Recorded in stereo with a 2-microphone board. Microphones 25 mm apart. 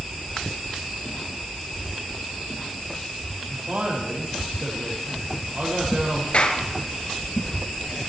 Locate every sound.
3.5 s a man speaking: 70° right (ahead or behind), 5.5 m
6.3 s a clap: 50° left (ahead or behind), 2.5 m